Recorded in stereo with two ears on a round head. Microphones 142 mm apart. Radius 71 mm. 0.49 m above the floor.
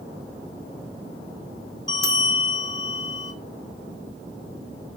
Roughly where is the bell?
Left.